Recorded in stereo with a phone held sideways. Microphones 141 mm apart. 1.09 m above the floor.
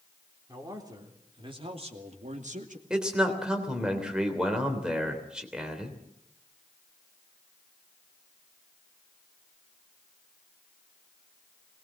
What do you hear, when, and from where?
0.5 s a man speaking: 25° right (ahead or behind), 3.5 m; by 2.8 s 65° right (ahead or behind), 2 m
2.9 s a man speaking: 5° right (ahead or behind), 3.5 m